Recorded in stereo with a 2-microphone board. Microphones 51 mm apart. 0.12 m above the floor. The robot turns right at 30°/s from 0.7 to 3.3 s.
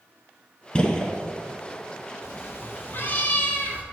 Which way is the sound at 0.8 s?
20° left (ahead or behind).